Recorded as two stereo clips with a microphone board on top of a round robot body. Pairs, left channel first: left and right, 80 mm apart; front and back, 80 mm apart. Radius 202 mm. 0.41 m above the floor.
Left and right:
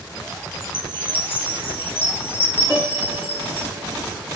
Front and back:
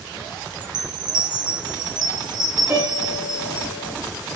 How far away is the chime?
About 0.9 m.